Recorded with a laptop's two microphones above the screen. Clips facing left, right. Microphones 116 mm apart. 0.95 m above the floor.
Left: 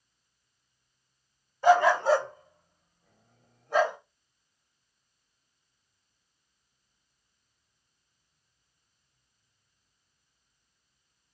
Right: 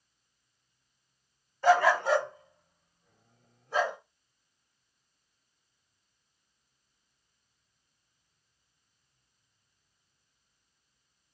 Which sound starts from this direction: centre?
A dog barking, at 1.6 s.